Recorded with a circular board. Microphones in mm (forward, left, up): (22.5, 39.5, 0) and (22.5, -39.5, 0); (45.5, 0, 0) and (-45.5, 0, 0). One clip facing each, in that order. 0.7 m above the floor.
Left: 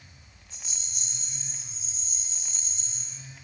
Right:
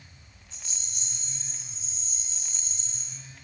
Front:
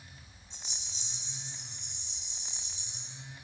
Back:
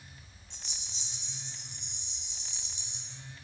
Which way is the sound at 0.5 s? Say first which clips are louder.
Even, front 1 dB; 160° left.